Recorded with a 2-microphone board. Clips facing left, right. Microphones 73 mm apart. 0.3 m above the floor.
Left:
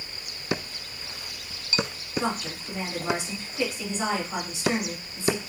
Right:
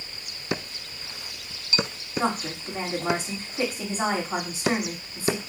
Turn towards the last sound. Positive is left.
turn(degrees=-35)  # may be behind; listen again after turning